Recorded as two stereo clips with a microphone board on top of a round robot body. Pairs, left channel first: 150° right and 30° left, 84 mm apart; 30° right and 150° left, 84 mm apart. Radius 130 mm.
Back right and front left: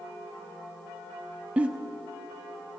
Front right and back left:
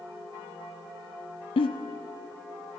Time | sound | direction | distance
1.6 | a giggle | 45° right | 0.5 m